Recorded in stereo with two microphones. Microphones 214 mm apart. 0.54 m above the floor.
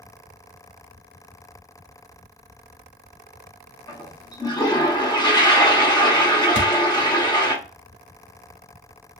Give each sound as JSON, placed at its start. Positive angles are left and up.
{"t": 3.9, "sound": "a toilet flushing", "side_deg": 20, "distance_m": 0.8}
{"t": 6.5, "sound": "a thud", "side_deg": 60, "distance_m": 0.9}